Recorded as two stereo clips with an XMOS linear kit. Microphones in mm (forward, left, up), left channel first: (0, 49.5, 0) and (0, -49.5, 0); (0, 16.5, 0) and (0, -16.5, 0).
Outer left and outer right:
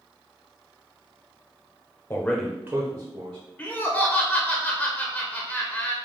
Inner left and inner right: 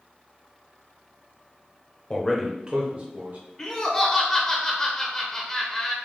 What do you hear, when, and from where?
2.1 s a man speaking: 25° left (ahead or behind), 0.9 m; by 3.4 s 55° right (ahead or behind), 1.4 m
3.6 s laughter: 15° left (ahead or behind), 0.8 m